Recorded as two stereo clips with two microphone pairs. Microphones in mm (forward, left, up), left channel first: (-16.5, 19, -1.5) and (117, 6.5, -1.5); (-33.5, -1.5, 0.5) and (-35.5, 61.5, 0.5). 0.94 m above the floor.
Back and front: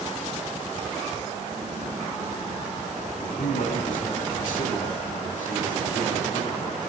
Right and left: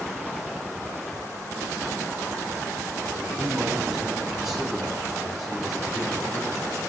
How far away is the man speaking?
About 8.5 m.